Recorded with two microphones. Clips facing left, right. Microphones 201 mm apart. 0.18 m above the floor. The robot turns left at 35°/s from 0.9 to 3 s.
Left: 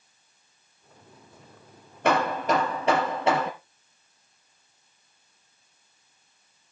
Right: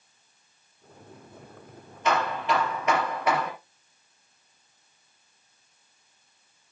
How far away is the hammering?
About 3.5 m.